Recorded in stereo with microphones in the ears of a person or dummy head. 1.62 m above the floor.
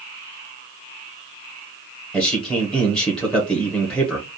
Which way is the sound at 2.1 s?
5° left (ahead or behind).